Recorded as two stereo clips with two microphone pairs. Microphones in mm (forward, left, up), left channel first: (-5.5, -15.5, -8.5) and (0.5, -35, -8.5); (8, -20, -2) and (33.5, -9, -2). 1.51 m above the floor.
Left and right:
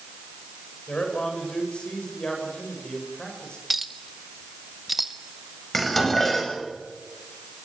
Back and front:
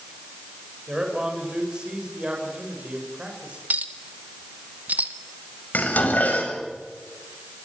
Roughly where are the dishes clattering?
Behind.